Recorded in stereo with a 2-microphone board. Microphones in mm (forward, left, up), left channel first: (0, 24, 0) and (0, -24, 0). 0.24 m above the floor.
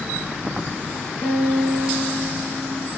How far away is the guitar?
About 3.5 m.